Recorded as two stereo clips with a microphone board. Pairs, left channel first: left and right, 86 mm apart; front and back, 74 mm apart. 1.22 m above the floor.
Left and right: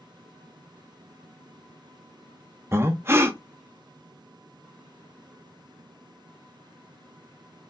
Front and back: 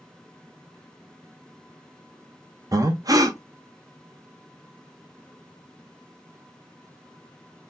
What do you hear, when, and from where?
2.7 s breathing: 150° right, 0.6 m